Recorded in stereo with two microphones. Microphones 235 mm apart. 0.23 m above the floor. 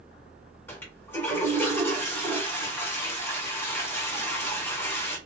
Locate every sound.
0.7 s a toilet flushing: 10° left (ahead or behind), 2.5 m